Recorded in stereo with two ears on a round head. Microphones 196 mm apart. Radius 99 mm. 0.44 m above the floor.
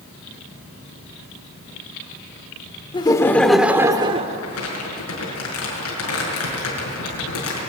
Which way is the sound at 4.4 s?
80° left.